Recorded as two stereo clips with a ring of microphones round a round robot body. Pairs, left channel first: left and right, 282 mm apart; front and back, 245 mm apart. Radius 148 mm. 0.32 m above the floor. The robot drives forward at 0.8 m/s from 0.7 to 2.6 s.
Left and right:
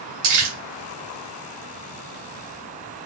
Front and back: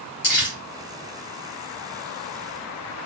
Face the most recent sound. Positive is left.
turn(degrees=-85)